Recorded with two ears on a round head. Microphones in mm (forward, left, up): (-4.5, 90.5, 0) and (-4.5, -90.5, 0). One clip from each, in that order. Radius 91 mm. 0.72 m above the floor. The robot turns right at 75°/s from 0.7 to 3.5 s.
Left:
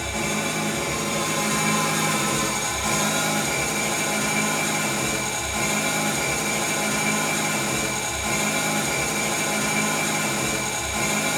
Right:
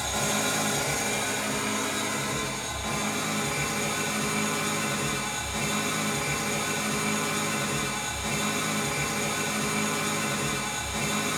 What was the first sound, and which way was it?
An engine running, 35° right.